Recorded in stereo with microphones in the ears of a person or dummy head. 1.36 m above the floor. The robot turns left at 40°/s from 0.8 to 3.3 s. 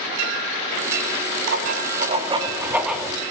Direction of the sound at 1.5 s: 120° right.